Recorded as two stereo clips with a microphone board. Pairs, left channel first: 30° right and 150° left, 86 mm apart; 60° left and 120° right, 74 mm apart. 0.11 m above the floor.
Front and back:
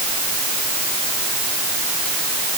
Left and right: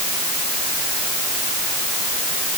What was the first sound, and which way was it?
Only background noise.